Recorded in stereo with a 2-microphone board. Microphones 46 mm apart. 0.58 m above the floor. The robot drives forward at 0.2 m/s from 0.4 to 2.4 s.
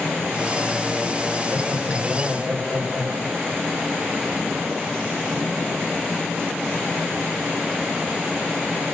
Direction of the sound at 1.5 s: 50° right (ahead or behind).